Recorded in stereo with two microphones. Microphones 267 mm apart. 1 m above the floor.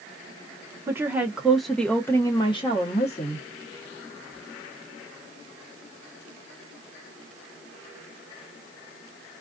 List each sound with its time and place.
0.9 s a woman speaking: 10° right (ahead or behind), 1.1 m; by 3.5 s 25° left (ahead or behind), 1.0 m